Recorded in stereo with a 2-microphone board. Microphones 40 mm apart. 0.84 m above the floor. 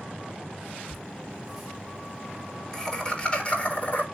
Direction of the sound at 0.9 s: 10° right (ahead or behind).